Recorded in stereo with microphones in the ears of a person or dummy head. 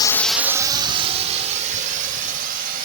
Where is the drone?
25° left (ahead or behind); by 2.9 s 45° right (ahead or behind).